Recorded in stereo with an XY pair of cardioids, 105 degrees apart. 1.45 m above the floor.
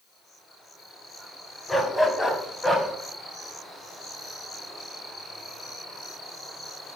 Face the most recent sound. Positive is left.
turn(degrees=0)